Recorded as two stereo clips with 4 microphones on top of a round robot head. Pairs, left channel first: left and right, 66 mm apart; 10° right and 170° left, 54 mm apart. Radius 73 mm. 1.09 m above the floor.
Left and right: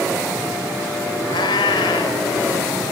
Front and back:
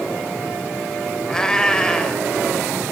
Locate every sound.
1.3 s a cat meowing: 70° left, 3 m